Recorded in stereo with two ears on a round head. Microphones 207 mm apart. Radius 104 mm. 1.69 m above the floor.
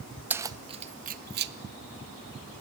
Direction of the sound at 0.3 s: 10° right (ahead or behind).